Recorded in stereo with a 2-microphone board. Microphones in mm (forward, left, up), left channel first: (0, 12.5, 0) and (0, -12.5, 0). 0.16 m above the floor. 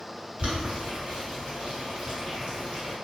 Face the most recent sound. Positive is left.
turn(degrees=-45)  # may be behind; listen again after turning